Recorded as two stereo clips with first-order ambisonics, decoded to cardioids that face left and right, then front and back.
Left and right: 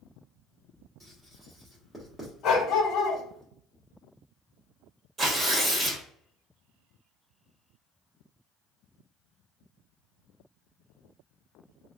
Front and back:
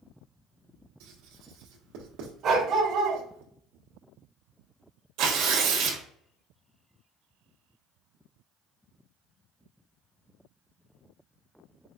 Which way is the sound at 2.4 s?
130° left.